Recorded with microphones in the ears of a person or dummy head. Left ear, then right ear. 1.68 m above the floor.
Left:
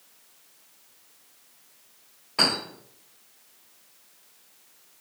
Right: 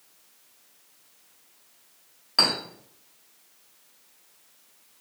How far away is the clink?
About 1.7 m.